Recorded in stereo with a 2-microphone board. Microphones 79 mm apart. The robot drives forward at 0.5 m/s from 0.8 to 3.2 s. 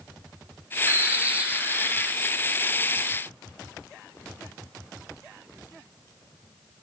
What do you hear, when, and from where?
0.9 s a bird: 30° right (ahead or behind), 0.5 m; by 2.1 s 15° right (ahead or behind), 1.1 m